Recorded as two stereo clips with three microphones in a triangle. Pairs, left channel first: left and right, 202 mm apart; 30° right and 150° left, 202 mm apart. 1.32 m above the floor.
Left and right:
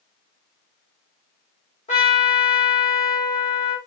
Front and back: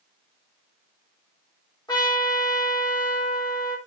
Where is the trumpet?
35° left, 1.6 m.